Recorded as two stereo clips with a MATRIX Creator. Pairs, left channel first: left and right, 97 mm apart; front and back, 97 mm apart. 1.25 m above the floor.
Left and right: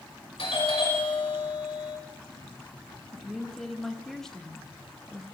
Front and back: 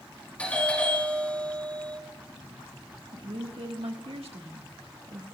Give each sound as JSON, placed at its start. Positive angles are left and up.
{"t": 0.4, "sound": "a doorbell", "azimuth_deg": 80, "distance_m": 5.0}
{"t": 3.1, "sound": "a woman speaking", "azimuth_deg": 175, "distance_m": 1.5}